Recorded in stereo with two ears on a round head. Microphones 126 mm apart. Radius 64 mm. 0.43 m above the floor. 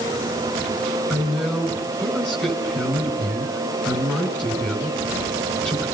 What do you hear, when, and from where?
1.1 s a woman speaking: 5° left (ahead or behind), 5 m